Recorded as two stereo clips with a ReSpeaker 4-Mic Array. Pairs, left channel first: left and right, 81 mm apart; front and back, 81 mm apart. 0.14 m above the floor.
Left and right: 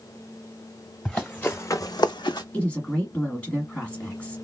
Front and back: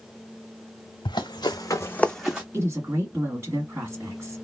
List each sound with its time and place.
1.1 s running footsteps: 10° left, 1.0 m; by 2.4 s 105° left, 0.7 m
2.5 s a woman speaking: 155° left, 1.7 m